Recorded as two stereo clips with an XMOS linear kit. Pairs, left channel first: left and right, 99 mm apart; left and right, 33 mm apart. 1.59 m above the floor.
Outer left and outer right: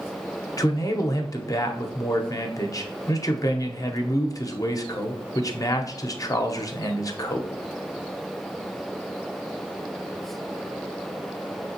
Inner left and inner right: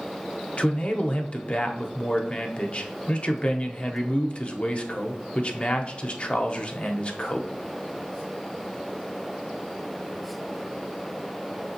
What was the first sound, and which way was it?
A man speaking, 35° left (ahead or behind).